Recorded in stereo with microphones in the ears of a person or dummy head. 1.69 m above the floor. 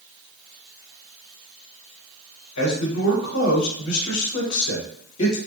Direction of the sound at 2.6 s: 80° left.